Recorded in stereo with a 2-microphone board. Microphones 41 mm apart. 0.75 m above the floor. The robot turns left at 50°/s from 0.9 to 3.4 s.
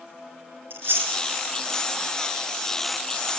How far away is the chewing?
About 4.5 m.